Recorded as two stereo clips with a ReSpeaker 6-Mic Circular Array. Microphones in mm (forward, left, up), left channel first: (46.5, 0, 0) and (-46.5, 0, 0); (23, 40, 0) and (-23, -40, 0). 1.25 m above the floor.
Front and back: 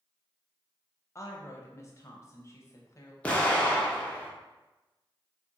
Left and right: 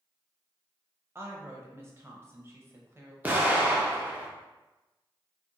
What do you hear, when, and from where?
1.1 s a woman speaking: 60° right, 0.6 m
3.2 s an explosion: 65° right, 0.6 m